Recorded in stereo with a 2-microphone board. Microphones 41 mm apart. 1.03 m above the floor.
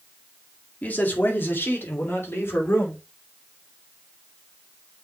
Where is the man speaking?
40° left (ahead or behind), 2 m; by 3.0 s 85° left, 4.5 m.